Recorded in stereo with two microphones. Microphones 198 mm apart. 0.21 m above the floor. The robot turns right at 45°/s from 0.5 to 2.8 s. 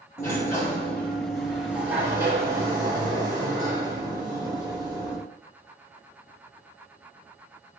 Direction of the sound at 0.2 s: 15° left (ahead or behind).